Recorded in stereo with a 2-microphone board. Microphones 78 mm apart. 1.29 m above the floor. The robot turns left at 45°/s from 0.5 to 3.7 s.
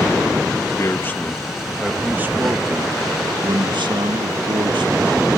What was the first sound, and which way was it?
A man speaking, 40° left.